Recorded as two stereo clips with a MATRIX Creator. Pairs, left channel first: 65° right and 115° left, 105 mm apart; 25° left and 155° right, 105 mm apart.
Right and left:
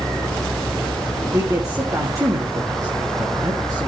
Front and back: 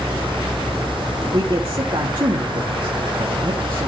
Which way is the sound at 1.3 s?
170° left.